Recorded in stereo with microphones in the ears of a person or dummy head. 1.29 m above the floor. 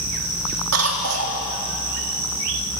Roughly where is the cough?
Right.